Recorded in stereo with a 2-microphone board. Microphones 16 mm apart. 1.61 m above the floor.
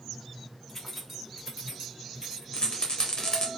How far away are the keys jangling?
About 0.8 m.